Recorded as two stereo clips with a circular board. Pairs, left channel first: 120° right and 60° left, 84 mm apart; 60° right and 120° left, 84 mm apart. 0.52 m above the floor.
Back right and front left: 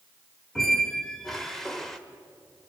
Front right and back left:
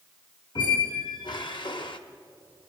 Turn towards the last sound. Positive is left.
turn(degrees=-35)